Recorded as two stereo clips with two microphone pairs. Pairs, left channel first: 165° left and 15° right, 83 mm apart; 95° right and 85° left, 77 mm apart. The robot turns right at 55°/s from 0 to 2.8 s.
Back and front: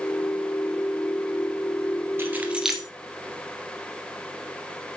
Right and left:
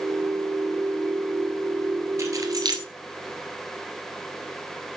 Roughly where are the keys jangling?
Ahead left.